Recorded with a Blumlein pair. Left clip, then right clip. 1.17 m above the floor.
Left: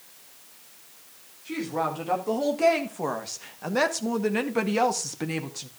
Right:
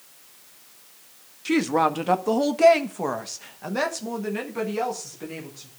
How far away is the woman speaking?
About 1.8 m.